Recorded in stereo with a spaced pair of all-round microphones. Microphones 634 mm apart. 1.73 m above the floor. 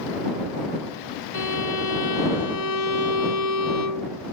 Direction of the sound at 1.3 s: 80° left.